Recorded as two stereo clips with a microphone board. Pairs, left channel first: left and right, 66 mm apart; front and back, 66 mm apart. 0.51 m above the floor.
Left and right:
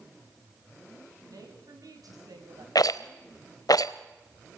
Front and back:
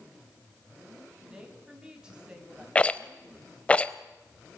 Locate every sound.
1.2 s a woman speaking: 105° right, 4 m
2.8 s a rattle: 70° left, 0.7 m